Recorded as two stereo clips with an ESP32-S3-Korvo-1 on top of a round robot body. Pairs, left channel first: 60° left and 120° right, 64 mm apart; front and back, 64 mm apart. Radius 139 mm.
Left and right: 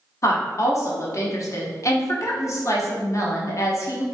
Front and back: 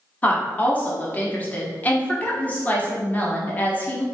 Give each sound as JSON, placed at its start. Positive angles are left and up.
{"t": 0.2, "sound": "a woman speaking", "azimuth_deg": 55, "distance_m": 1.2}